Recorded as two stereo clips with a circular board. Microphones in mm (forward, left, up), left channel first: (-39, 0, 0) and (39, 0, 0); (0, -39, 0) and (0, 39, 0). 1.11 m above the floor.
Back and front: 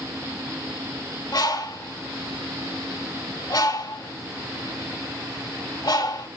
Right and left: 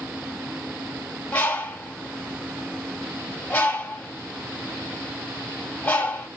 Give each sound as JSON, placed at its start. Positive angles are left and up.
{"t": 1.3, "sound": "a bird", "azimuth_deg": -160, "distance_m": 3.5}